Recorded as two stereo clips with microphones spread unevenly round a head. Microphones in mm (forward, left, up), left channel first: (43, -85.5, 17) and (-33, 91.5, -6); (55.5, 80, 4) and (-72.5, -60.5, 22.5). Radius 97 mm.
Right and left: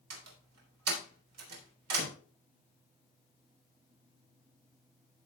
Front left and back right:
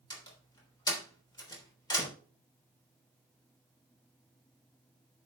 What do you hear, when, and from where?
0.1 s a door slam: 115° left, 3.5 m